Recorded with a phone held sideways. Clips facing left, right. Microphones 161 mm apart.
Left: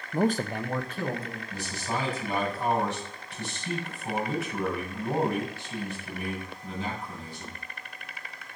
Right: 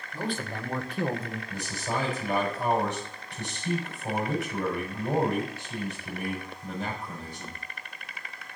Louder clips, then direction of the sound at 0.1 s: Left 7 dB; 60° left (ahead or behind).